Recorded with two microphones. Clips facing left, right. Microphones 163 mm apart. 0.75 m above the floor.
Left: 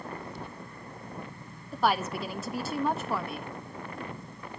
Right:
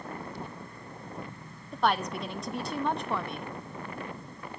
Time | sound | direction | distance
1.7 | a woman speaking | 5° left (ahead or behind) | 0.6 m